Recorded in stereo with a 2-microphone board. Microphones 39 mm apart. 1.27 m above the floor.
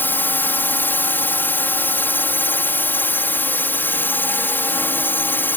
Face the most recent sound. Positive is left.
turn(degrees=65)  # may be behind; listen again after turning